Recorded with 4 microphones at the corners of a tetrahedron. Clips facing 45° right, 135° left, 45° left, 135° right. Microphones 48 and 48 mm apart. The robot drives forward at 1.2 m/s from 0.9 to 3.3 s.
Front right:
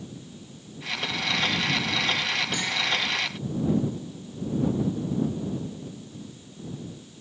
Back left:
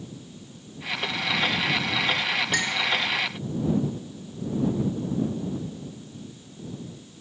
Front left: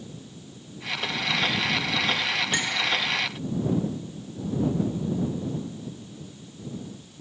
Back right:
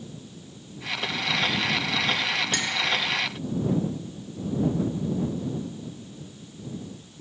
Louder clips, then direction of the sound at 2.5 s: Back left 3 dB, front left 1 dB; 115° left.